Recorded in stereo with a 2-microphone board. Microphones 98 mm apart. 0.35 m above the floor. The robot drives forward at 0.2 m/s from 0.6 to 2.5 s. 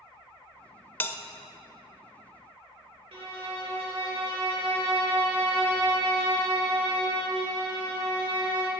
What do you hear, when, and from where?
1.0 s a bell: 20° left (ahead or behind), 0.6 m
3.1 s a violin: 80° right, 3 m